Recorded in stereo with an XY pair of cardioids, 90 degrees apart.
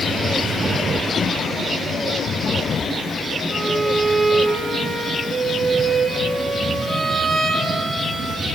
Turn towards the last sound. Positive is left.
turn(degrees=-35)